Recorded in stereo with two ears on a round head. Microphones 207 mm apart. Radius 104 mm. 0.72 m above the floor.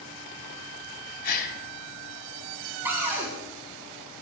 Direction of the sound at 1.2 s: 45° left (ahead or behind).